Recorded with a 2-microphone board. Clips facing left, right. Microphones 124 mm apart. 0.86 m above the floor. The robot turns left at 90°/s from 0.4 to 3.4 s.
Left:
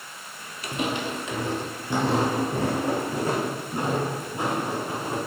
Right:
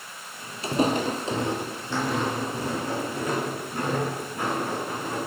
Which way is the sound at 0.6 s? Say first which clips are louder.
Right 5 dB; 30° right (ahead or behind).